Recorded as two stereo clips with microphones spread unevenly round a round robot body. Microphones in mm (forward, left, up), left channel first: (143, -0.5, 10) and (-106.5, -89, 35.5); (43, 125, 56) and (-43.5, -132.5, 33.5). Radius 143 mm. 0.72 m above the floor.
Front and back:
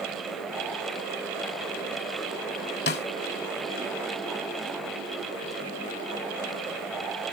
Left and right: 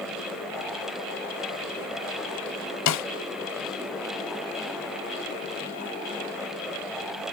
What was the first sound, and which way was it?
A snare drum, 75° left.